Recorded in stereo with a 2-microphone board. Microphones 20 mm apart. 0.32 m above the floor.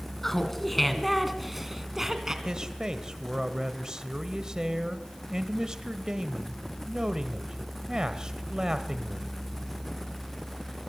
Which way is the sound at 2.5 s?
35° right (ahead or behind).